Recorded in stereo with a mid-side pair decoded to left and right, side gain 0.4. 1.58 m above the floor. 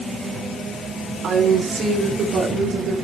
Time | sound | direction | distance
1.2 | a woman speaking | 60° right | 5.5 m